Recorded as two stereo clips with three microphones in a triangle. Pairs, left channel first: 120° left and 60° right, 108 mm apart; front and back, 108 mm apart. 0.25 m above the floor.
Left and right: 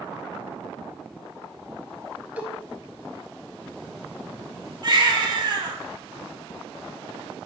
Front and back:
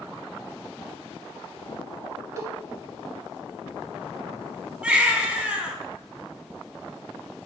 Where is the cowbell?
130° right, 0.6 m.